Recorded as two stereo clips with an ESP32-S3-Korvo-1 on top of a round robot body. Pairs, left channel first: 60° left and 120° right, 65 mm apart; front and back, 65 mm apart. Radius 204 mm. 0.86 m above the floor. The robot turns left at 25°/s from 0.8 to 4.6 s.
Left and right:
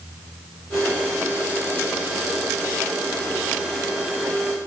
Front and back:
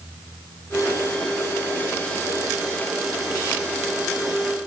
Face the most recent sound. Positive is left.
No sound to turn to.